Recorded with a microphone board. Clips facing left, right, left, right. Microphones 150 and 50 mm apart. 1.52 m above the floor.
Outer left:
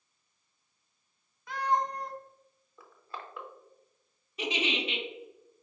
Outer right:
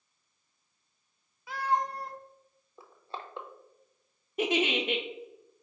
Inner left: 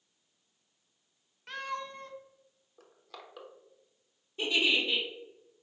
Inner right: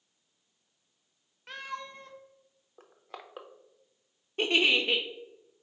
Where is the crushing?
30° right (ahead or behind), 0.5 m.